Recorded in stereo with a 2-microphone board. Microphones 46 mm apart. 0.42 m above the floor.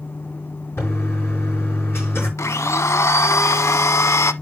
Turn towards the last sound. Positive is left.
turn(degrees=80)